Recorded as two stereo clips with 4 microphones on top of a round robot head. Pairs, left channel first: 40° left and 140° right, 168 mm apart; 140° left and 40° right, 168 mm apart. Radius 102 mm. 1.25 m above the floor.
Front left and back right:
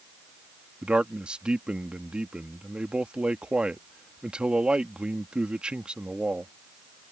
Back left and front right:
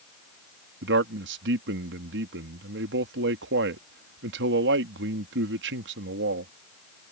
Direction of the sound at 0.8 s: 55° right.